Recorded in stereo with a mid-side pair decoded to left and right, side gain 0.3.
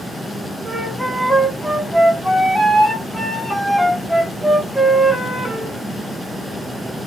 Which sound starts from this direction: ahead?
A flute, at 0.7 s.